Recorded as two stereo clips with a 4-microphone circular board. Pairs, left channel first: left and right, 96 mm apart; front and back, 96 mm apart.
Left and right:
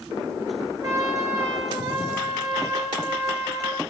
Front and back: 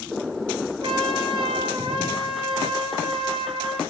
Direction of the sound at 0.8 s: 145° right.